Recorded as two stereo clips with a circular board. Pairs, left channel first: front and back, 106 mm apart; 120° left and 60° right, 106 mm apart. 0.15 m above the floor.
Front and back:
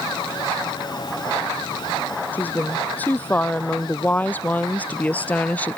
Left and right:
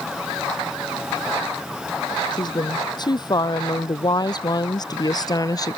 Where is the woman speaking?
75° left.